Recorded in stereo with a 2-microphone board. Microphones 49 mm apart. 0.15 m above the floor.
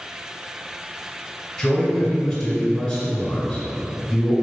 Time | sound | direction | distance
1.6 | a man speaking | 10° left (ahead or behind) | 1.6 m